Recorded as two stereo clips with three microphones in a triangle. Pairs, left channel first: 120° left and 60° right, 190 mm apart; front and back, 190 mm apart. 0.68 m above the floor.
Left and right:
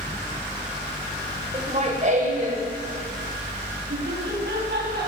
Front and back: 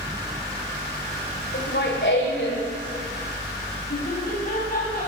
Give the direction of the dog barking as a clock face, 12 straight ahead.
I don't hear a dog barking.